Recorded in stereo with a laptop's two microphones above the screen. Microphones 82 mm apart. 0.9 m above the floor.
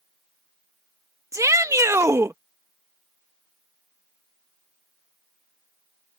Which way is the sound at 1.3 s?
40° right (ahead or behind).